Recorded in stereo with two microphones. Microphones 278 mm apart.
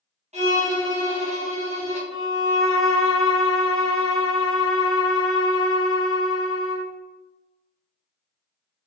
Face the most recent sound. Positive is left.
turn(degrees=50)  # may be behind; listen again after turning